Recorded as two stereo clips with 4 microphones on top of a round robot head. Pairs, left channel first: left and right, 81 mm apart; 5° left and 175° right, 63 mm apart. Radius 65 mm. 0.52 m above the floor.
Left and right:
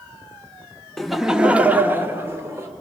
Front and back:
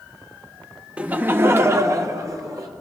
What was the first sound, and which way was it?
Laughter, 170° left.